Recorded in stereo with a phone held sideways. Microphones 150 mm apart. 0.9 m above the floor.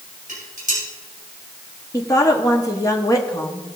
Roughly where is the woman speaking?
Left.